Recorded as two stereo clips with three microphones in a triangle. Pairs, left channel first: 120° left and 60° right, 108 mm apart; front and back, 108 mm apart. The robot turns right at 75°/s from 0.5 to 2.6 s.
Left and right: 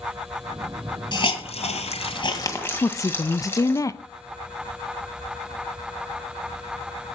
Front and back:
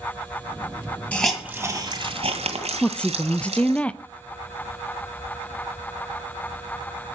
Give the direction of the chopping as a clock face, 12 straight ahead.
No chopping in this recording.